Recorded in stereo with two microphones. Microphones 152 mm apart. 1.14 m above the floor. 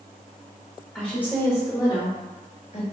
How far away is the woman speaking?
About 1.6 m.